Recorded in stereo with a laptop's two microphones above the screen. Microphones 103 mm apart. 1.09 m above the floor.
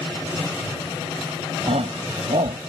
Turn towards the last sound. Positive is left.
turn(degrees=-80)